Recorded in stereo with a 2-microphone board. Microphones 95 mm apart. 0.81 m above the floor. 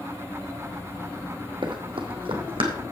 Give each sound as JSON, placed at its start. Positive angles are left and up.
{"t": 1.6, "sound": "running footsteps", "side_deg": -60, "distance_m": 1.5}